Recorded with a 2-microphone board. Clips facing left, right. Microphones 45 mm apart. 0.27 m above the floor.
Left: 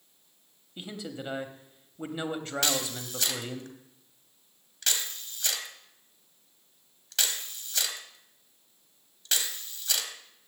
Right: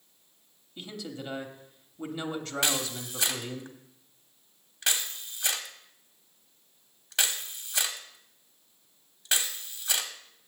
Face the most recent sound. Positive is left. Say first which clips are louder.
# right 1 dB
turn(degrees=-20)  # may be behind; listen again after turning